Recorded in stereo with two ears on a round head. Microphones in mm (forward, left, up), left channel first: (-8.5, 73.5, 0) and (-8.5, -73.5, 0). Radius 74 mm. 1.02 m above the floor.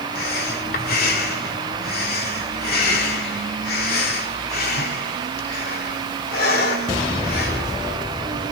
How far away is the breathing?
About 3 m.